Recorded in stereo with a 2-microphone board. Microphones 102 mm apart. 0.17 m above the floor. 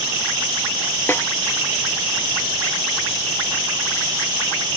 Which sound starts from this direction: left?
A snare drum, at 1.1 s.